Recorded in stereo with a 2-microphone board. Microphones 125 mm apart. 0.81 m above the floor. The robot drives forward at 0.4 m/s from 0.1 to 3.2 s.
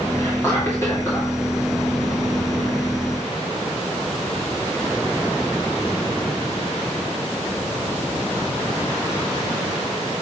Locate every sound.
0.2 s whispering: 25° left (ahead or behind), 2 m; by 1.3 s 20° left (ahead or behind), 2.5 m